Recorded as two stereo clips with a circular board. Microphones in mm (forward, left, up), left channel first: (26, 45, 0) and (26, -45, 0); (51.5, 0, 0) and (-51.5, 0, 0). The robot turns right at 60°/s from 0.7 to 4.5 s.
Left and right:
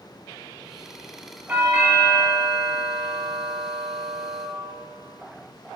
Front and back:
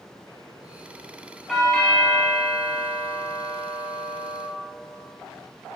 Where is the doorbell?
85° right, 1.5 m; by 4.5 s 95° left, 1.5 m.